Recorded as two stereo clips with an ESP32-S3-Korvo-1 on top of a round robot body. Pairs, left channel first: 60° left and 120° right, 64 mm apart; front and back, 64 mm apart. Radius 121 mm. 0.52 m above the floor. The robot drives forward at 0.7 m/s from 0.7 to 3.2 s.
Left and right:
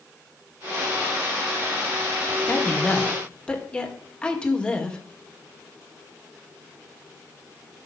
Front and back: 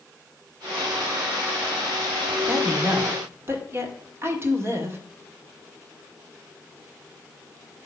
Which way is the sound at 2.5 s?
120° left.